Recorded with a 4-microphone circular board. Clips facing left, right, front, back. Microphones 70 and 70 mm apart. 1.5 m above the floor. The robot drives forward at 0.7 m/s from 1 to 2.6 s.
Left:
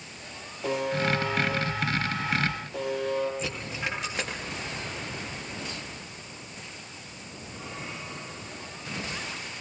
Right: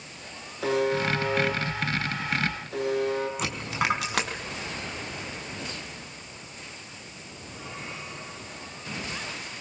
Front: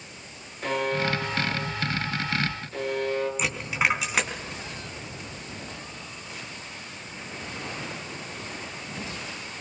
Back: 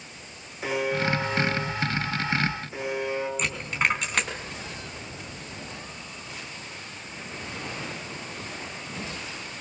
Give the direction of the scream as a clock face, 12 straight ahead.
I don't hear a scream.